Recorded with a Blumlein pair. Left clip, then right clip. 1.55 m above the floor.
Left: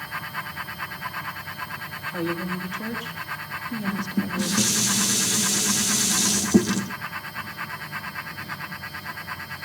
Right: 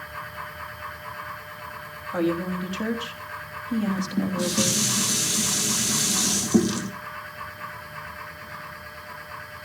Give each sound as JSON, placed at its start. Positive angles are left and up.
{"t": 0.0, "sound": "a fan", "azimuth_deg": 30, "distance_m": 2.0}
{"t": 2.1, "sound": "a woman speaking", "azimuth_deg": -20, "distance_m": 3.5}
{"t": 3.9, "sound": "dishes clattering", "azimuth_deg": 5, "distance_m": 1.7}